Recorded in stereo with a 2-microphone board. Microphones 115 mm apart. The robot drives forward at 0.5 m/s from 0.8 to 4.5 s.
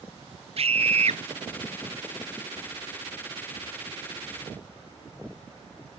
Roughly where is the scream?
Right.